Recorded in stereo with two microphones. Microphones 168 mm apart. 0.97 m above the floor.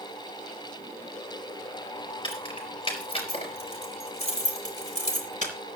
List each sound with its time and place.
2.2 s keys jangling: 30° left (ahead or behind), 5 m; by 5.5 s 55° left (ahead or behind), 5 m